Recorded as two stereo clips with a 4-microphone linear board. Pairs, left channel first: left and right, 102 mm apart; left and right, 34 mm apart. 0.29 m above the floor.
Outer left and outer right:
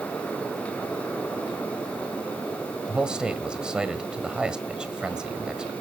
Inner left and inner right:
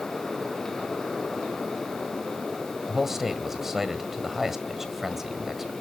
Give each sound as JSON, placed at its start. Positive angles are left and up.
{"t": 2.9, "sound": "a man speaking", "side_deg": -10, "distance_m": 1.6}